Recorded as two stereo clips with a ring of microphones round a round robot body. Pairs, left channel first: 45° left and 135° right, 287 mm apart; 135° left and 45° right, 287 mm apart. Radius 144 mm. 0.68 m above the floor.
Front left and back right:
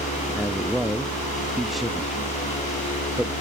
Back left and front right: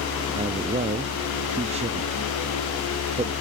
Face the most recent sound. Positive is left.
turn(degrees=-45)